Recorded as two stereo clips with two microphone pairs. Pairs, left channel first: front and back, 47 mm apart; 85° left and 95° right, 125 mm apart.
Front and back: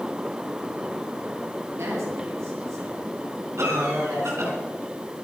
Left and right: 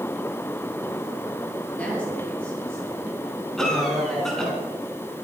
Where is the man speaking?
165° left, 7 m; by 4.6 s 175° left, 8 m.